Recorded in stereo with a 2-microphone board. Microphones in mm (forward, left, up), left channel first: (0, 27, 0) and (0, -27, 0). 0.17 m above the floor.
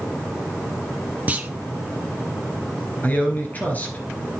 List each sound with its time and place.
1.3 s a clunk: 25° right (ahead or behind), 0.8 m
3.0 s a man speaking: 30° left (ahead or behind), 2.5 m